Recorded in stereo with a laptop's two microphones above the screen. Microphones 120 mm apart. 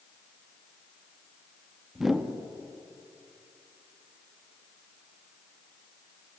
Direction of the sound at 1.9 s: Centre (ahead or behind).